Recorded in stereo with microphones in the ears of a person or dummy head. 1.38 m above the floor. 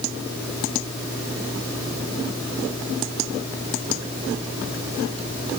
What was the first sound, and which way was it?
Only background noise.